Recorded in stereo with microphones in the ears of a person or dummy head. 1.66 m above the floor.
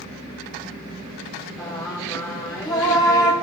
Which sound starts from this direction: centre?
Singing, at 1.6 s.